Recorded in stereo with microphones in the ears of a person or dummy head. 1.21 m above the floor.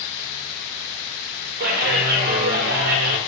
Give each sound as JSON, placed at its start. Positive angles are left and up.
{"t": 1.6, "sound": "a clap", "side_deg": -55, "distance_m": 0.9}